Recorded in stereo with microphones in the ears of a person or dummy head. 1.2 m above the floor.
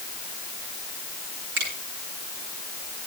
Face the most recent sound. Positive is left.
turn(degrees=-70)  # may be behind; listen again after turning